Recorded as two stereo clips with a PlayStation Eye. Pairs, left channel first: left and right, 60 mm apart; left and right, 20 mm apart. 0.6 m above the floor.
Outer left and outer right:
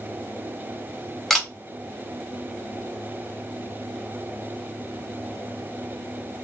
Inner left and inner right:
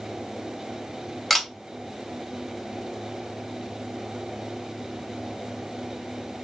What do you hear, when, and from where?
1.3 s a camera shutter: 5° left (ahead or behind), 1.2 m